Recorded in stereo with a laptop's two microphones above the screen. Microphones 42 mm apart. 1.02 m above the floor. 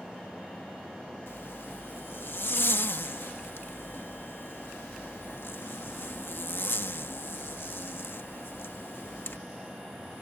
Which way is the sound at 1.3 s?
65° left (ahead or behind).